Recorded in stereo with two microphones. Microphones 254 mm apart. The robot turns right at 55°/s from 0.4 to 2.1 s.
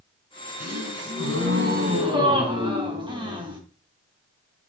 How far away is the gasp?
About 3 m.